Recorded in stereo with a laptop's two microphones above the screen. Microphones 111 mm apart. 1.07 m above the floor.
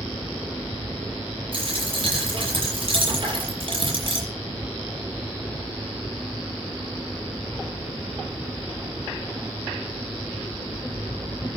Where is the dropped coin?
50° right (ahead or behind), 8 m.